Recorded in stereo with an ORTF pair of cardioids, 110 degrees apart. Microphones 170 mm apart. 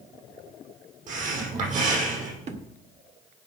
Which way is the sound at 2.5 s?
50° right.